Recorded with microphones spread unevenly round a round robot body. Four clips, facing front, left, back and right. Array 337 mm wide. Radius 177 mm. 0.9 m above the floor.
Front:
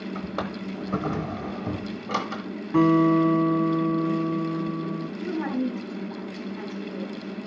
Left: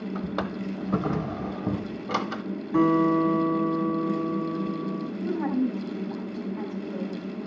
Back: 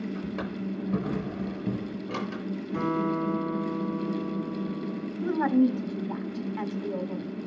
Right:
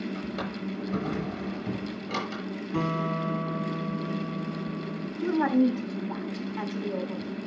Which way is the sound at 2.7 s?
20° left.